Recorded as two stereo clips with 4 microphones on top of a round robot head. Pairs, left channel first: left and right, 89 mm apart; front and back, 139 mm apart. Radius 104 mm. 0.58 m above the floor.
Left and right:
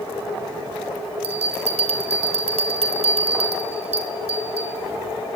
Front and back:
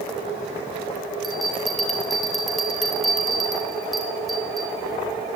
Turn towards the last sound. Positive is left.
turn(degrees=-90)